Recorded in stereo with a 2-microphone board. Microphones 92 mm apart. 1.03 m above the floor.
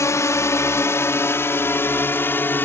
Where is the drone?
35° left (ahead or behind); by 2.6 s 20° left (ahead or behind).